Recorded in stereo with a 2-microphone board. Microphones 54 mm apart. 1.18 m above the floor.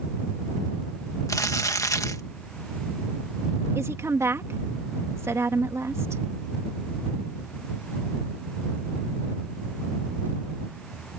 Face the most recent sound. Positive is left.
turn(degrees=-55)  # may be behind; listen again after turning